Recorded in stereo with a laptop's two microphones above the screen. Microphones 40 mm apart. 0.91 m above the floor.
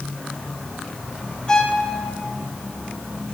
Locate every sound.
1.5 s a violin: 20° left (ahead or behind), 1.5 m